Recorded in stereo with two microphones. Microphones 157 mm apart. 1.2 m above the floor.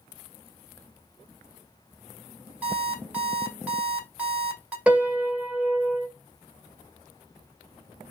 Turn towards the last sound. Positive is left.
turn(degrees=-5)  # may be behind; listen again after turning